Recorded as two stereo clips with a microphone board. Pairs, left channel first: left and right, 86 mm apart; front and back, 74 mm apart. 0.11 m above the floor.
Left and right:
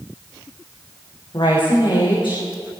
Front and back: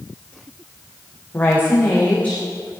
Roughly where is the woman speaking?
Ahead left.